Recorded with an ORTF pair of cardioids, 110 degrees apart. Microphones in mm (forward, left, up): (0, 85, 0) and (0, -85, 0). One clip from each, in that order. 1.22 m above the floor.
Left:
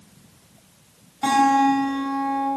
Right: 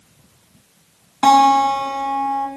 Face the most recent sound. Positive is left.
turn(degrees=-55)